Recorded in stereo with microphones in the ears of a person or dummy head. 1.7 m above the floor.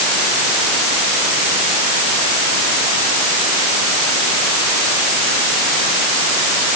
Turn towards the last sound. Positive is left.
No sound to turn to.